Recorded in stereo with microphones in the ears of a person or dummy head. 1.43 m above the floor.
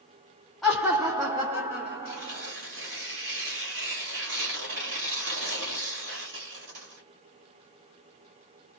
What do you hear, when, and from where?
0.6 s laughter: 5° right (ahead or behind), 0.8 m; by 2.5 s 35° right (ahead or behind), 1.5 m
2.0 s tearing paper: 65° right (ahead or behind), 1.6 m